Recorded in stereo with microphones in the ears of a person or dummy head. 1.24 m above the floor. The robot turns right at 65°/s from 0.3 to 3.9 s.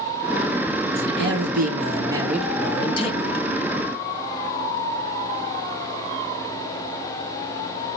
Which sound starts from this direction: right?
A man speaking, at 0.9 s.